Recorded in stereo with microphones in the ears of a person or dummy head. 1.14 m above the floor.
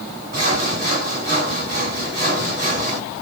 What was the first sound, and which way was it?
Sawing, 45° right (ahead or behind).